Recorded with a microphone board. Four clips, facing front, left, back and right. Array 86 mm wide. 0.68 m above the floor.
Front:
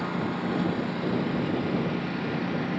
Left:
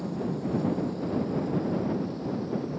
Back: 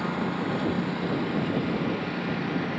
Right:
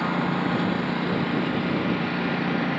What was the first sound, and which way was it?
A lawn mower, 95° right.